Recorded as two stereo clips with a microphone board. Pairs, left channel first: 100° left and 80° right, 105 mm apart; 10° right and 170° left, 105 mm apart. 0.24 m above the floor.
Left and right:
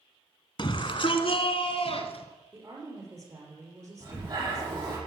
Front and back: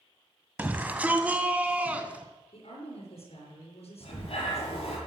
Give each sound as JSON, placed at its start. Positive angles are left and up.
{"t": 0.6, "sound": "a shout", "azimuth_deg": 100, "distance_m": 1.5}
{"t": 2.5, "sound": "a woman speaking", "azimuth_deg": -20, "distance_m": 5.5}
{"t": 4.0, "sound": "breathing", "azimuth_deg": -35, "distance_m": 7.5}